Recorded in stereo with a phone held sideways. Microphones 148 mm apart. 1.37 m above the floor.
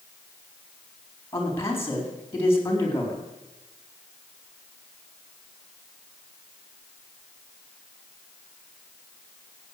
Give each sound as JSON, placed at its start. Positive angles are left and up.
{"t": 1.3, "sound": "a man speaking", "side_deg": 20, "distance_m": 4.0}